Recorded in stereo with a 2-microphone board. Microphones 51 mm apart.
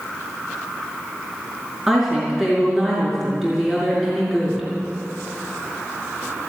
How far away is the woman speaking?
About 5.5 m.